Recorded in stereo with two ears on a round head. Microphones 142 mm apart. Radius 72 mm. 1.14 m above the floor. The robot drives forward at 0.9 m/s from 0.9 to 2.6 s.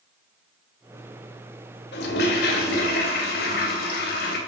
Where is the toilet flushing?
80° left, 2.5 m; by 4.4 s 70° left (ahead or behind), 2.5 m.